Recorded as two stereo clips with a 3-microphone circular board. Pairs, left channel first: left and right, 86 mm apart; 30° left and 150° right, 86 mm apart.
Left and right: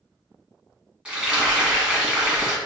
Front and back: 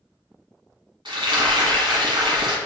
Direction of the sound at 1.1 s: 170° right.